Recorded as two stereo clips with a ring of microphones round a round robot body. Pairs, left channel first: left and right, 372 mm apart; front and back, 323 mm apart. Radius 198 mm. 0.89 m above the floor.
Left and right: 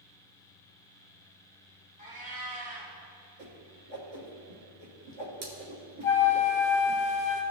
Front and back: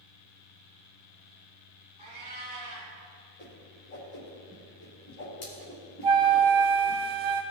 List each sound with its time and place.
2.0 s a cat meowing: 160° right, 3 m
3.4 s a whoosh: 65° right, 2.5 m
6.0 s a flute: 175° left, 1.4 m